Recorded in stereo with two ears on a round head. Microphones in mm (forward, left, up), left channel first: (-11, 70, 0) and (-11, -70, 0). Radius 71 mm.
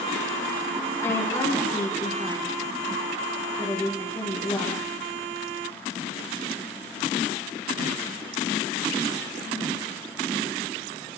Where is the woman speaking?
20° left (ahead or behind), 9.5 m.